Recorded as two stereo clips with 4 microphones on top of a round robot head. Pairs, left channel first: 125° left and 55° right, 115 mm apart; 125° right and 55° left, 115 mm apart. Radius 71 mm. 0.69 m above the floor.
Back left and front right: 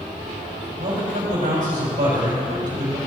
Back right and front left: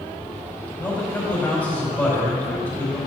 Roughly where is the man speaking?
Ahead right.